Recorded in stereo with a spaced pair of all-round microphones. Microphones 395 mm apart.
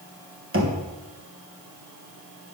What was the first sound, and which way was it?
Knocking, 30° right (ahead or behind).